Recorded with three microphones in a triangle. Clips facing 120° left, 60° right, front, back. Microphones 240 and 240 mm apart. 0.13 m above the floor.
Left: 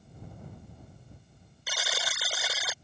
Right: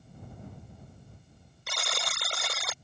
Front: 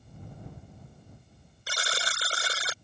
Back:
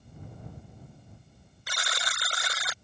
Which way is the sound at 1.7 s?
35° left.